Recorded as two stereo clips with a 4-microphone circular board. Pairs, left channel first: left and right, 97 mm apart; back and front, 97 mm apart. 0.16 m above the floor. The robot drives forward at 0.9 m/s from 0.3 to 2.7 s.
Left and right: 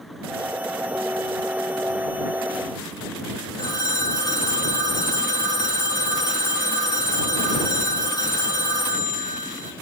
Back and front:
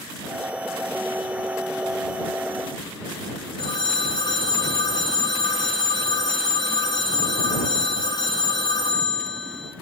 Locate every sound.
3.6 s a phone ringing: 140° left, 4 m